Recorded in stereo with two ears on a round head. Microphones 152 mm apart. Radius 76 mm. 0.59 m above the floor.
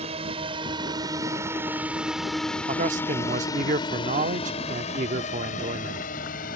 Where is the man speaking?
45° right (ahead or behind).